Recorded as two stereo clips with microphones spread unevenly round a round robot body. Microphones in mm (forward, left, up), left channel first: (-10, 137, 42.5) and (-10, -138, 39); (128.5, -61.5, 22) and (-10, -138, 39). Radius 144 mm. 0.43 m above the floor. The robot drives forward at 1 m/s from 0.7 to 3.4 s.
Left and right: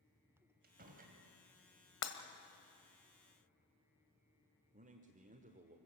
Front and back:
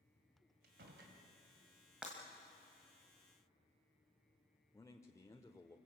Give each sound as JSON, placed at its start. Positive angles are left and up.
{"t": 0.6, "sound": "a door slam", "azimuth_deg": -145, "distance_m": 2.5}
{"t": 2.0, "sound": "breaking glass", "azimuth_deg": 120, "distance_m": 1.6}
{"t": 4.7, "sound": "a man speaking", "azimuth_deg": -35, "distance_m": 1.3}